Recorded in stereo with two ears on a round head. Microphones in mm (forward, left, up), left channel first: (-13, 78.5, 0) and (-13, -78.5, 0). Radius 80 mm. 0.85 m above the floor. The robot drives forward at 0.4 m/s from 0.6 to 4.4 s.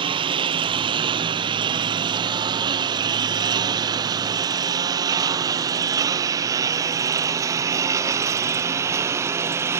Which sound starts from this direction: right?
A lawn mower, at 0.0 s.